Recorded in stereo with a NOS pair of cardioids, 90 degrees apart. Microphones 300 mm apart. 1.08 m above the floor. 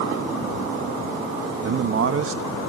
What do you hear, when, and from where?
1.6 s a man speaking: 50° right, 1.2 m